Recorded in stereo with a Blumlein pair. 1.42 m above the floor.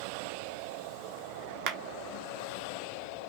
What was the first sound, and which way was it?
A clap, 40° right.